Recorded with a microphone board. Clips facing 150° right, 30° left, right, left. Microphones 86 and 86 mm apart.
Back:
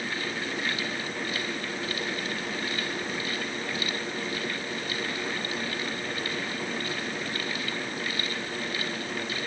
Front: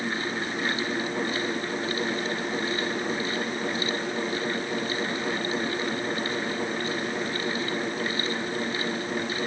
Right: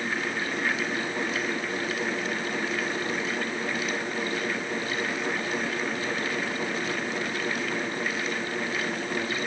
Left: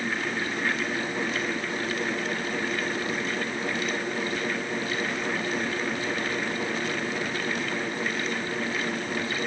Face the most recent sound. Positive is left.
No sound to turn to.